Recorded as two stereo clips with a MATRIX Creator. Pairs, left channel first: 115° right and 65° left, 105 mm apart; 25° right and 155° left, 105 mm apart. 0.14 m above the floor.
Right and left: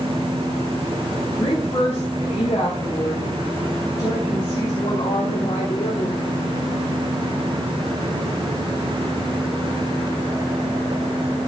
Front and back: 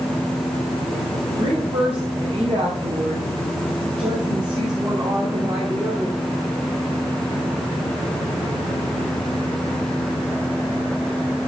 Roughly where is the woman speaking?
Behind.